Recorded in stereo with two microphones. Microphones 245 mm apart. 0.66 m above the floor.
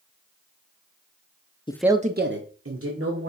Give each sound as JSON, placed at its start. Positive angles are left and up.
{"t": 1.7, "sound": "a man speaking", "side_deg": 20, "distance_m": 0.6}